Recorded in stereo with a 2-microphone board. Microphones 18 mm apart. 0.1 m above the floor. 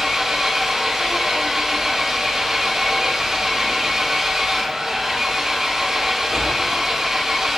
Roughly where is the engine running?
Right.